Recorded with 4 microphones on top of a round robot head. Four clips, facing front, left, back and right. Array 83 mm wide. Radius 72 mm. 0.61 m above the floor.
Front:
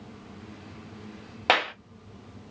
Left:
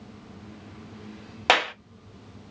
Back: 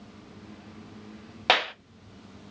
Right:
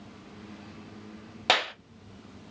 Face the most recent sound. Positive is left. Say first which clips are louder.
# left 5 dB, front 1 dB
turn(degrees=80)